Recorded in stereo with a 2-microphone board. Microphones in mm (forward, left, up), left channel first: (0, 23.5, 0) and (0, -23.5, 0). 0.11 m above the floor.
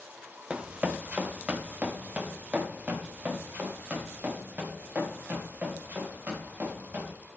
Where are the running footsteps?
25° right (ahead or behind), 1.2 m; by 7.1 s 35° right (ahead or behind), 6.5 m.